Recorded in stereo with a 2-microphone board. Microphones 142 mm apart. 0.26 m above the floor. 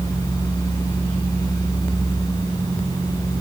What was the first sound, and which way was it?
Only background noise.